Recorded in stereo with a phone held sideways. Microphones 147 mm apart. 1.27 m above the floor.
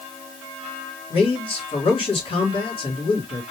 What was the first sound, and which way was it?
A man speaking, 35° left (ahead or behind).